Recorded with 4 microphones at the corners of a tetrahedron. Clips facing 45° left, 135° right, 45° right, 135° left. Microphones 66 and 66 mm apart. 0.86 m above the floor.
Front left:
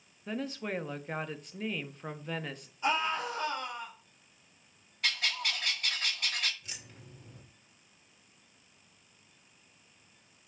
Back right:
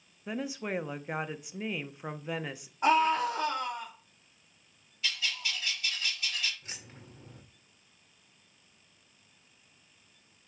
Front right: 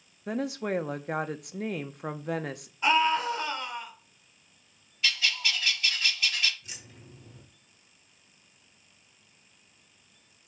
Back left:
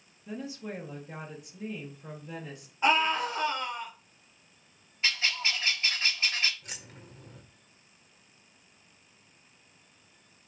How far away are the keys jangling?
About 2 m.